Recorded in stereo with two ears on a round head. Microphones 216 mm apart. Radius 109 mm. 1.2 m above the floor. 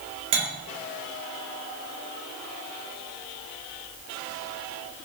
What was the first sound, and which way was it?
Cutlery clinking, 25° right (ahead or behind).